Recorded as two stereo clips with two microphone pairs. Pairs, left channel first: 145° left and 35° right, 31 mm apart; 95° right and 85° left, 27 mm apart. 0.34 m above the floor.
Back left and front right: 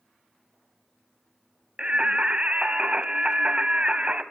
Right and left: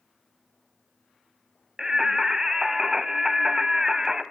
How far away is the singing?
About 0.8 m.